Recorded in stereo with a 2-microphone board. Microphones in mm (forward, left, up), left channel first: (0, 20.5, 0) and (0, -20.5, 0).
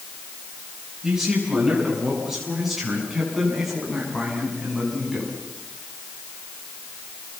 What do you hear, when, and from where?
1.0 s a man speaking: 5° right (ahead or behind), 9 m; by 5.3 s 5° left (ahead or behind), 7 m